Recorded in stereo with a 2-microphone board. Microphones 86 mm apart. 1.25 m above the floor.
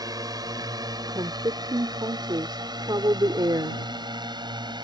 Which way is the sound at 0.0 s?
50° right (ahead or behind).